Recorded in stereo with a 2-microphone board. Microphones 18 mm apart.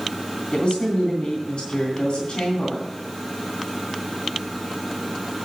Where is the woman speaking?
55° left (ahead or behind), 2 m.